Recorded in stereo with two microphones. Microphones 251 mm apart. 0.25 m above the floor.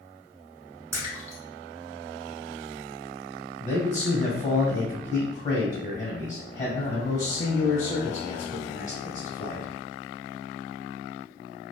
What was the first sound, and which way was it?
A splash, 10° right (ahead or behind).